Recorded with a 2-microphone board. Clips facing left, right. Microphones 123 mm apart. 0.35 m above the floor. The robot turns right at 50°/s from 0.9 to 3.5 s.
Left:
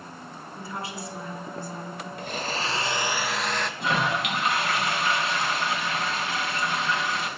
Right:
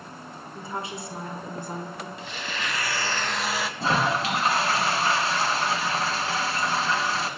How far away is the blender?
About 1.0 m.